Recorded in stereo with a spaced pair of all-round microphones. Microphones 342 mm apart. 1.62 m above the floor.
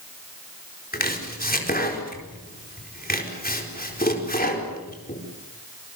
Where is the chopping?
25° left (ahead or behind), 4 m.